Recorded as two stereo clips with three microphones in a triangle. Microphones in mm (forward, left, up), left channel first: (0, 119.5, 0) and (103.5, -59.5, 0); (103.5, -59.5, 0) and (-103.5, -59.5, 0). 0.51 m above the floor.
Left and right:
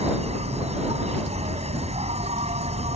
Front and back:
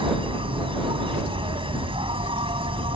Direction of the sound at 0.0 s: 115° right.